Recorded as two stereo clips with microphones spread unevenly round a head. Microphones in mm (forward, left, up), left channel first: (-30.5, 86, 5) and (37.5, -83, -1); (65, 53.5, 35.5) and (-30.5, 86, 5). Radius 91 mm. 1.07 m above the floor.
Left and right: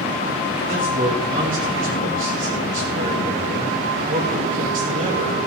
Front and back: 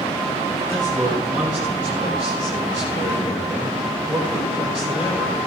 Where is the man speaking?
115° right, 7 m.